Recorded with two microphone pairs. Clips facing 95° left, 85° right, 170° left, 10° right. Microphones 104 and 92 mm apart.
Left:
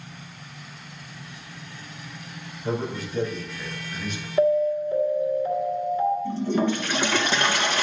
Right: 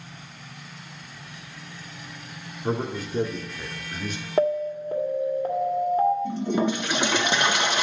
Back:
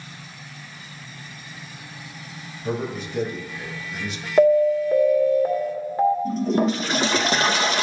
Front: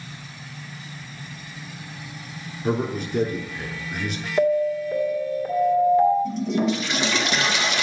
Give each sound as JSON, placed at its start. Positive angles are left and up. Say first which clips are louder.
{"t": 2.6, "sound": "a man speaking", "louder": "right 1 dB, front 3 dB", "azimuth_deg": -45, "distance_m": 3.0}
{"t": 4.4, "sound": "an alarm", "louder": "left 3 dB, back 5 dB", "azimuth_deg": -125, "distance_m": 1.9}
{"t": 6.2, "sound": "a toilet flushing", "louder": "left 1 dB, back 2 dB", "azimuth_deg": -155, "distance_m": 0.8}